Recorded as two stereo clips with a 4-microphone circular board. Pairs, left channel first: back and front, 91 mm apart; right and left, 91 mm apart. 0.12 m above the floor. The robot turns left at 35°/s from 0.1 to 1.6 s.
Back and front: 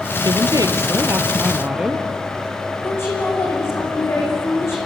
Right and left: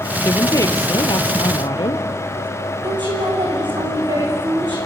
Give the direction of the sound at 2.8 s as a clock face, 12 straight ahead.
8 o'clock.